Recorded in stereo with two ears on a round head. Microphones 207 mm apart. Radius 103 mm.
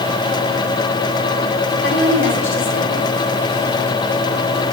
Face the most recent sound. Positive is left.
turn(degrees=60)  # may be behind; listen again after turning